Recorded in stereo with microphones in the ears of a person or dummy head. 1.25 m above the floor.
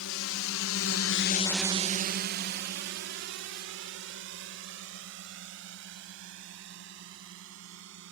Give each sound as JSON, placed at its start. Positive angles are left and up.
{"t": 0.0, "sound": "a drone", "side_deg": 75}